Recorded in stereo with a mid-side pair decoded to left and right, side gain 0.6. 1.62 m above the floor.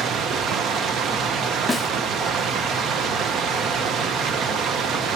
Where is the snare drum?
20° left, 0.5 m.